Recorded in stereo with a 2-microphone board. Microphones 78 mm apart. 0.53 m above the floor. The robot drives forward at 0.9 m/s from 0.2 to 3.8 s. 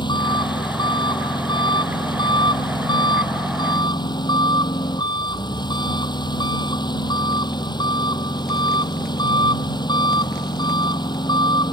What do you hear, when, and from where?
0.0 s an engine running: 80° left; by 11.7 s 70° left (ahead or behind)